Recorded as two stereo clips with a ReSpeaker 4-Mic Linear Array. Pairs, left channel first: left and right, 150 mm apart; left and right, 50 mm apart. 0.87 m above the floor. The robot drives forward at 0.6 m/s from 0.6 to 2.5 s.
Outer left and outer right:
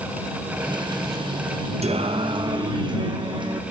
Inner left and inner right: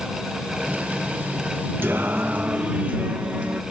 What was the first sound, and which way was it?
Singing, 45° right (ahead or behind).